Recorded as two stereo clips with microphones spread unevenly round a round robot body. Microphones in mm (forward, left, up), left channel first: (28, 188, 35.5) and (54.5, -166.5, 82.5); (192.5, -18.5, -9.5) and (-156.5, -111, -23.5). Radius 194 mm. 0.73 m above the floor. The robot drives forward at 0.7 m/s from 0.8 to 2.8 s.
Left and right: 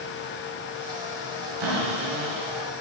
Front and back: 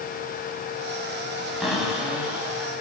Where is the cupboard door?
75° right, 4 m; by 2.7 s 85° right, 4 m.